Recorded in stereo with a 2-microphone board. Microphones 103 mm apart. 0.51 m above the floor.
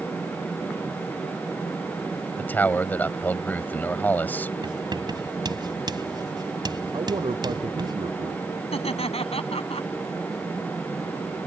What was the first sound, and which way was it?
A man speaking, 20° left (ahead or behind).